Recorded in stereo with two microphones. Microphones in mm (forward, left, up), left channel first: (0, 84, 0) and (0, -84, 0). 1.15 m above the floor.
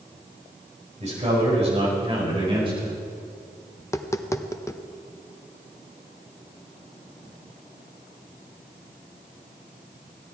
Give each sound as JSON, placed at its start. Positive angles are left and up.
{"t": 1.0, "sound": "a man speaking", "side_deg": -40, "distance_m": 4.5}
{"t": 3.8, "sound": "tapping", "side_deg": 15, "distance_m": 0.5}